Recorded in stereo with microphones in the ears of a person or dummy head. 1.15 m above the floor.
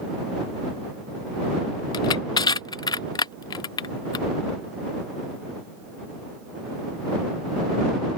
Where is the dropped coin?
No dropped coin in this recording.